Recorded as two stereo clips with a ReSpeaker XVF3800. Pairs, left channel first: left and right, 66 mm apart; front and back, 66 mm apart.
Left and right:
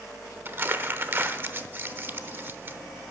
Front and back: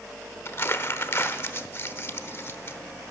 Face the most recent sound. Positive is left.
turn(degrees=-40)